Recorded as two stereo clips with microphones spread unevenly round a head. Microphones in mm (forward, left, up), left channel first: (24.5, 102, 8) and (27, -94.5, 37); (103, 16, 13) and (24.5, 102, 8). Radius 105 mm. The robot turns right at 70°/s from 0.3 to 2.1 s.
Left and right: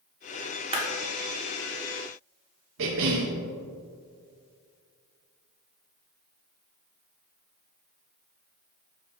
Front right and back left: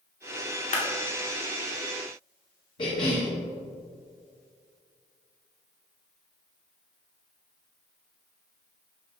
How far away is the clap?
About 1.8 m.